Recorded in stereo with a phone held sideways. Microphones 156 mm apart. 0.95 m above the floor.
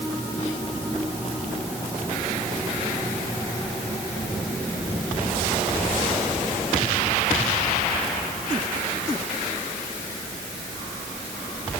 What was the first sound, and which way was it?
Only background noise.